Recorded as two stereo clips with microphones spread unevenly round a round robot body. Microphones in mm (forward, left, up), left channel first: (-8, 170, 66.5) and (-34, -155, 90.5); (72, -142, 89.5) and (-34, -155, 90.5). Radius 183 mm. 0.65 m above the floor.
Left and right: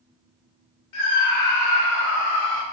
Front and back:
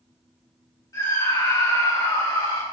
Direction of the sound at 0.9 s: 70° left.